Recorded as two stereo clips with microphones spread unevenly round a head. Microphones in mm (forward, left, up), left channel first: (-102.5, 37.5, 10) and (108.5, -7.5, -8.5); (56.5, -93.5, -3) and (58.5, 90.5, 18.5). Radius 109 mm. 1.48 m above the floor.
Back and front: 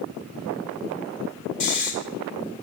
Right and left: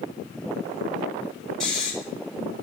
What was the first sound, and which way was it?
Snoring, 175° left.